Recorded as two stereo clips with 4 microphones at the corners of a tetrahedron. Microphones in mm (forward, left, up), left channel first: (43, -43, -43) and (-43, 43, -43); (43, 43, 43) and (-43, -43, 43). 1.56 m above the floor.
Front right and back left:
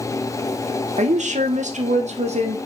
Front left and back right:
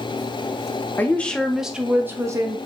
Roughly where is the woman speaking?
Behind left.